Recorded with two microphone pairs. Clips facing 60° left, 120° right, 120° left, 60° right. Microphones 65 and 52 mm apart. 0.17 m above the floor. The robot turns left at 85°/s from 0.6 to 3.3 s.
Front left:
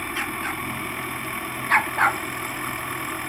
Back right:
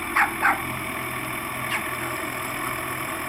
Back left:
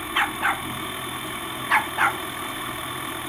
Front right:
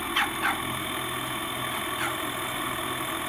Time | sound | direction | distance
0.1 | a dog barking | 165° right | ?